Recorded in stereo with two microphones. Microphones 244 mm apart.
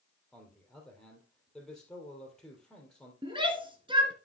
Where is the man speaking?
5° left (ahead or behind), 3 m.